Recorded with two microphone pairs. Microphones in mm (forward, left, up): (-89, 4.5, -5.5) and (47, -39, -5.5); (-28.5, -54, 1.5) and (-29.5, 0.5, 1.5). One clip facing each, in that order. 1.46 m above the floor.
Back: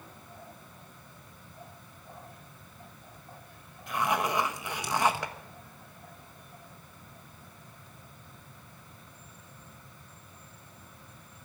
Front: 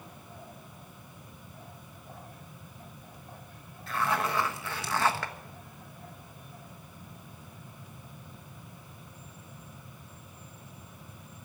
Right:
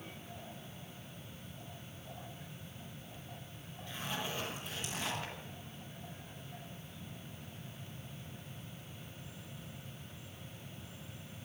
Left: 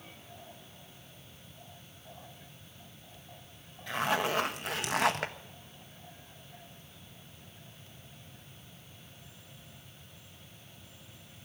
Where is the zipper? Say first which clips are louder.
Back 1 dB, left 11 dB; 90° left, 1.2 m.